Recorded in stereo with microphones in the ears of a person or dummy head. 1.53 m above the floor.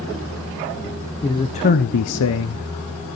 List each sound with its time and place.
1.2 s a man speaking: 10° left (ahead or behind), 1.3 m; by 3.2 s 45° left (ahead or behind), 2 m